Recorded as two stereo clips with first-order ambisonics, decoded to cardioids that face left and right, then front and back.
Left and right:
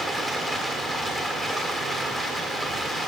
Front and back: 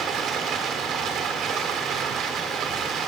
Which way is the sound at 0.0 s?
170° left.